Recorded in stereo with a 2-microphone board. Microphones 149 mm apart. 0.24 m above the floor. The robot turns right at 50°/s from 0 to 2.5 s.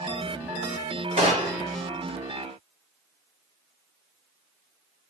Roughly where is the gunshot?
Right.